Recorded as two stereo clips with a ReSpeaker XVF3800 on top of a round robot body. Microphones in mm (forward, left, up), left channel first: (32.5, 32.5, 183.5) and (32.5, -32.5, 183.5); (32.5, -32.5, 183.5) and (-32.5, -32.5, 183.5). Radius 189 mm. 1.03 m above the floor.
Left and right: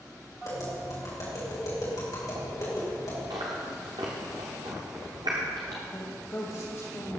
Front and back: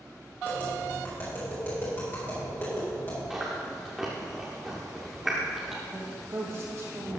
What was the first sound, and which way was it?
Tapping, 60° left.